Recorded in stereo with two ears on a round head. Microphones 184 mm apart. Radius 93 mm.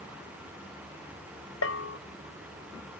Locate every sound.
1.6 s a bell: 65° left (ahead or behind)